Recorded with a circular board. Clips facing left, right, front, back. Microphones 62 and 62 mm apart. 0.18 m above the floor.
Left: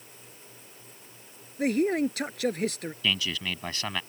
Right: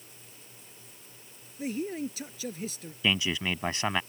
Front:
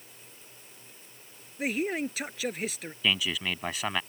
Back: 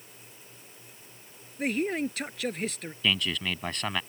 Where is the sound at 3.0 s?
75° right.